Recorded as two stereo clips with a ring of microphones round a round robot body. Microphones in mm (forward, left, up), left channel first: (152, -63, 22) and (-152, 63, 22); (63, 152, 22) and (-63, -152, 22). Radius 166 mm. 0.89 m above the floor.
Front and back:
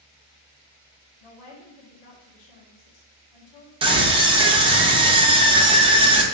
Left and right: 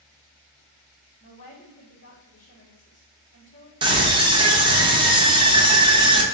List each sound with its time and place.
1.2 s a woman speaking: straight ahead, 1.3 m
3.8 s a scream: 160° right, 0.8 m